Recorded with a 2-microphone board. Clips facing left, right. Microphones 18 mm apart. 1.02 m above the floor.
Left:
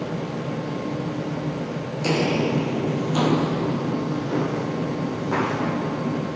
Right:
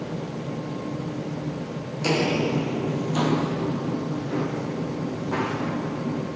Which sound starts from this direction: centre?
Footsteps, at 2.0 s.